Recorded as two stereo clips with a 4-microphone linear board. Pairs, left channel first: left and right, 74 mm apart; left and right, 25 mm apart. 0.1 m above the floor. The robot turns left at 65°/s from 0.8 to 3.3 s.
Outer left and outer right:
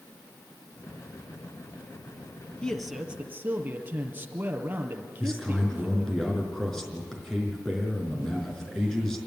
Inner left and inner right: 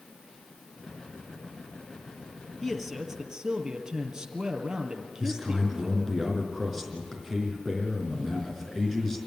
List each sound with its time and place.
2.6 s a man speaking: 15° left, 1.9 m; by 6.2 s 30° right, 1.9 m
5.2 s a man speaking: 5° left (ahead or behind), 4.5 m